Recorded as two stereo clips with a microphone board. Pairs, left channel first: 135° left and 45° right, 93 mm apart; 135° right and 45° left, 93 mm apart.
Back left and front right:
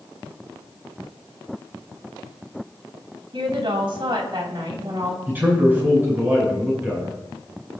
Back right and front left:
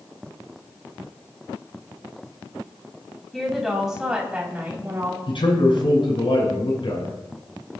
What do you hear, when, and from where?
3.3 s a woman speaking: 50° right, 2.5 m; by 5.2 s 15° right, 2.5 m
5.3 s a man speaking: 110° right, 6.5 m